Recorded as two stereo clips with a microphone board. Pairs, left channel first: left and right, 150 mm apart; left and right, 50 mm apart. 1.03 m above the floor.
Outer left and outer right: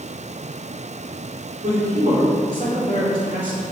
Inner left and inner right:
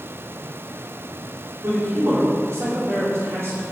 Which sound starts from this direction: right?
A man speaking, at 1.6 s.